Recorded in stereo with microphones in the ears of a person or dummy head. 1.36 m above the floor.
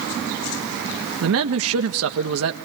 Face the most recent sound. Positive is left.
turn(degrees=-85)